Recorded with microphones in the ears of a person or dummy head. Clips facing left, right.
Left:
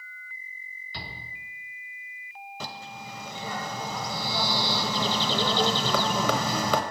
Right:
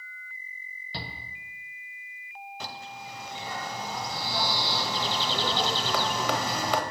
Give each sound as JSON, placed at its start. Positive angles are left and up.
{"t": 0.9, "sound": "a shout", "side_deg": -35, "distance_m": 1.1}
{"t": 2.6, "sound": "a bird", "side_deg": 80, "distance_m": 0.7}